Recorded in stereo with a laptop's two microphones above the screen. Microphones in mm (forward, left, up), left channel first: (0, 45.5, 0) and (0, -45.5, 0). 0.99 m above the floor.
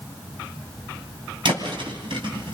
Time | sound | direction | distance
1.4 | a thud | 65° right (ahead or behind) | 3.5 m